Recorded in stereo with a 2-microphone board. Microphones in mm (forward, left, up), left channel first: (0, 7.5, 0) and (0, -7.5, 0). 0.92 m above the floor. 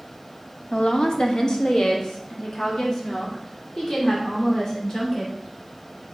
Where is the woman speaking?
65° left (ahead or behind), 1.1 m; by 5.3 s 45° left (ahead or behind), 3.5 m.